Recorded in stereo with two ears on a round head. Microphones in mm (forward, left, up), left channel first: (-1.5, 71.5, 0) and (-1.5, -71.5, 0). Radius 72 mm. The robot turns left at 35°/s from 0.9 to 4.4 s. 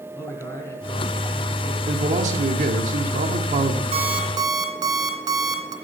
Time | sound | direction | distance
0.1 | a man speaking | 15° left | 5 m
1.9 | a man speaking | 55° right | 1.7 m
3.9 | an alarm clock | 40° right (ahead or behind) | 2.5 m